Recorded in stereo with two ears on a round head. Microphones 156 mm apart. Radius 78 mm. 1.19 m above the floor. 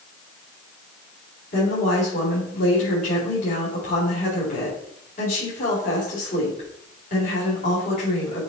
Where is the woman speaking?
50° left (ahead or behind), 4.5 m.